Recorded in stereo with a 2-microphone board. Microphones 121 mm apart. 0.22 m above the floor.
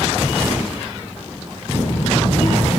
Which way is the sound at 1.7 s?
60° left (ahead or behind).